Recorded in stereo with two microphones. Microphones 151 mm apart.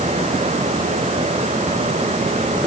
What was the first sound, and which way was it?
Only background noise.